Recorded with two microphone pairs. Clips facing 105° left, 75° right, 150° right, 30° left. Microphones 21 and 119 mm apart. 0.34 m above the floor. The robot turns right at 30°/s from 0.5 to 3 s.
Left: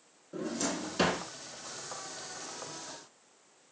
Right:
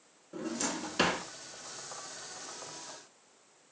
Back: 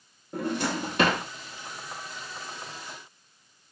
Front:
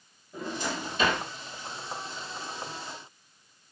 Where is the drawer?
165° right, 0.8 m; by 1.2 s 140° right, 0.8 m.